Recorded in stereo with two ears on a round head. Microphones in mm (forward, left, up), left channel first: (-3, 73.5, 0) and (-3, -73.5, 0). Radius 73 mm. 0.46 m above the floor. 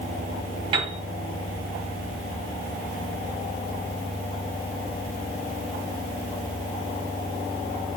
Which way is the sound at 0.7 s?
35° right (ahead or behind).